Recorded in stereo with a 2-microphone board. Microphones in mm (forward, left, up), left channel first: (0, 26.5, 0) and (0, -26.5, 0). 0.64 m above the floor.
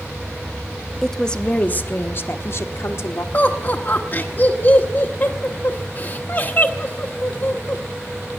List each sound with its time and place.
1.0 s a woman speaking: 5° left (ahead or behind), 0.7 m; by 3.2 s 65° left (ahead or behind), 1.4 m
3.3 s laughter: 40° left (ahead or behind), 1.1 m